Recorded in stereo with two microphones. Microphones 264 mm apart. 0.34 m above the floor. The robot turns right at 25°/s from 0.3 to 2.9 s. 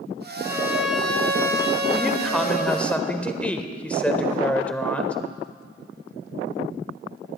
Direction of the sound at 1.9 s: Centre (ahead or behind).